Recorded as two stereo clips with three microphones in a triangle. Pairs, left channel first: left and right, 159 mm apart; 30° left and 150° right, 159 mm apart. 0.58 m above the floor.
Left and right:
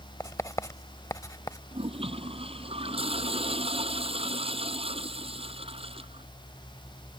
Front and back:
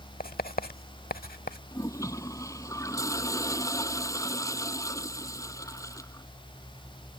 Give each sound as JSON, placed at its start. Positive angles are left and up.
{"t": 0.2, "sound": "writing", "azimuth_deg": 20}
{"t": 1.7, "sound": "a toilet flushing", "azimuth_deg": -40}